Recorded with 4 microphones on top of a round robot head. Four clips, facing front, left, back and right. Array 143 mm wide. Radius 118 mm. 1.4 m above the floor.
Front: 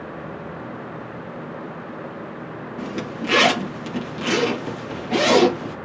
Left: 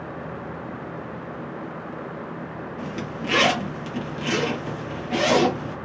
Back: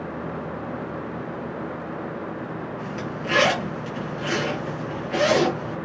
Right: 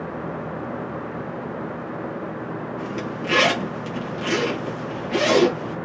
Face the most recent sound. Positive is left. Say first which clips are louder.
# right 3 dB, front 2 dB
turn(degrees=5)